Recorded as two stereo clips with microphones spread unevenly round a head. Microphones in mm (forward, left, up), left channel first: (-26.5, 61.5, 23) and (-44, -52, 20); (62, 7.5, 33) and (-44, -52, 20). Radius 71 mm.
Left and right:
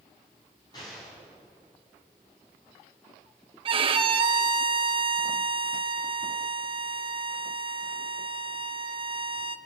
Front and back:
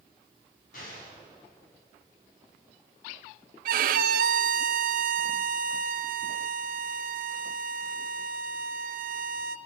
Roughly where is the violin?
Behind right.